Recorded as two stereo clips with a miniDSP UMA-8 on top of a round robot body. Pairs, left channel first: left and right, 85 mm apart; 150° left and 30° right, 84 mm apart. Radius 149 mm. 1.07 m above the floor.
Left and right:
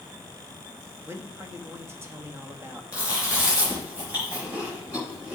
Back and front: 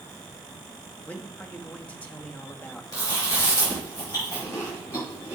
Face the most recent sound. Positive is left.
turn(degrees=-160)